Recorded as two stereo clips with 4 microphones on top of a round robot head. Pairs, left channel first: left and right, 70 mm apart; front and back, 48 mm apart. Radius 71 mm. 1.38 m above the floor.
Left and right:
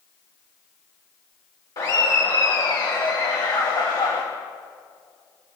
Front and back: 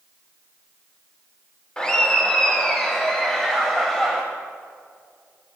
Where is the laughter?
65° left, 1.6 m; by 4.2 s 80° left, 3 m.